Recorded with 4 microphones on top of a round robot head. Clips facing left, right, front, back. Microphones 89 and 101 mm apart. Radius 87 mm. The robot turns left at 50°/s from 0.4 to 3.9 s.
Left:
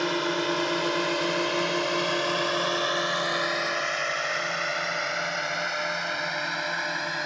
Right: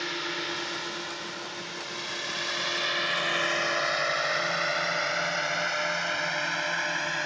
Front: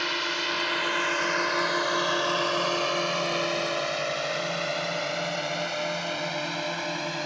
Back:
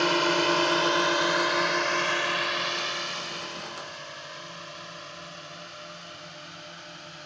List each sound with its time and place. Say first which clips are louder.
0.0 s a drone: left 8 dB, back 7 dB; 135° left; by 7.3 s 10° left